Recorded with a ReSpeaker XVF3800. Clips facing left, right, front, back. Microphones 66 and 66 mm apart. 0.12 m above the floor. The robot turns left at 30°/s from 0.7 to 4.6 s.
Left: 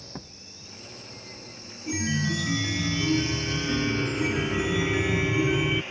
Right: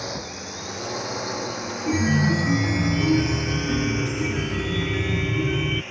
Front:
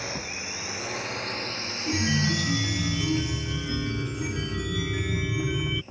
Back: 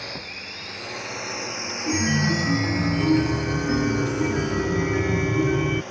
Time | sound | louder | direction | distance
0.0 | a drone | right 12 dB, front 1 dB | 85° right | ?
1.9 | a chime | right 7 dB, back 4 dB | 115° right | ?